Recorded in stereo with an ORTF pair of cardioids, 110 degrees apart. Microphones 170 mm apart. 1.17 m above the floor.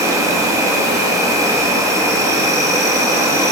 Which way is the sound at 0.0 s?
20° right.